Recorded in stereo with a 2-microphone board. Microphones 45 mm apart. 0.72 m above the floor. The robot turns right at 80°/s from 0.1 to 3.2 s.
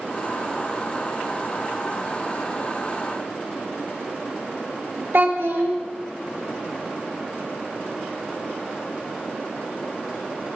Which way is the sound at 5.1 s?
65° right (ahead or behind).